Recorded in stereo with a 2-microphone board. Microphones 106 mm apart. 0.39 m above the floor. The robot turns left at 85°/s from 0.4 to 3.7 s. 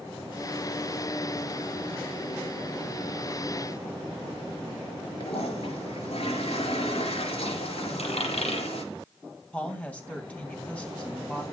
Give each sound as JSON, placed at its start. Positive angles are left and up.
{"t": 5.2, "sound": "a toilet flushing", "side_deg": 75, "distance_m": 5.0}
{"t": 8.0, "sound": "a dropped coin", "side_deg": 85, "distance_m": 6.0}
{"t": 9.5, "sound": "a woman speaking", "side_deg": 15, "distance_m": 3.0}